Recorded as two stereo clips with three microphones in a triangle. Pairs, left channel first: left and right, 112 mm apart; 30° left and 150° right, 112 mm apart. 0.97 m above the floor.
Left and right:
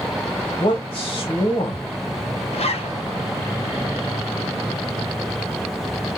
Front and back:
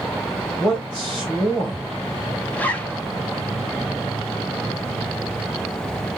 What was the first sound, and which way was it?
A man speaking, 105° left.